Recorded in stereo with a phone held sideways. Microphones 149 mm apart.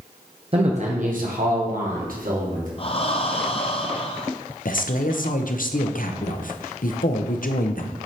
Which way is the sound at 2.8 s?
40° left (ahead or behind).